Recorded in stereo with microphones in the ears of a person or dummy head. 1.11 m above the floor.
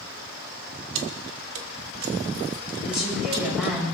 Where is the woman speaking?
Centre (ahead or behind), 5.5 m.